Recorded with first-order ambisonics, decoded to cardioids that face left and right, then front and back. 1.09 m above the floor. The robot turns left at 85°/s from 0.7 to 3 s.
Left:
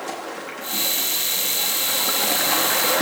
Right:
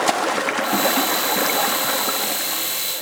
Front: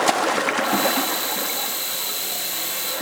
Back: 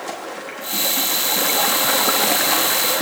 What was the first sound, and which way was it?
Running water, 50° right.